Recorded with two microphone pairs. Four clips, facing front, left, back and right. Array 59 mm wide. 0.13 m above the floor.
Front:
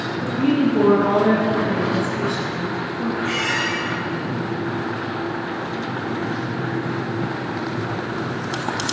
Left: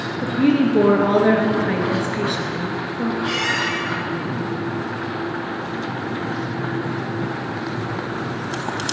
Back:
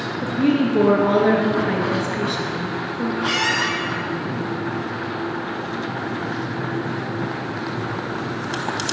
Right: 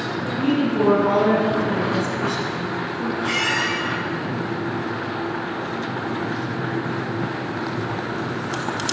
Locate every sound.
0.2 s a woman speaking: 110° left, 2 m
3.2 s a squeak: straight behind, 2 m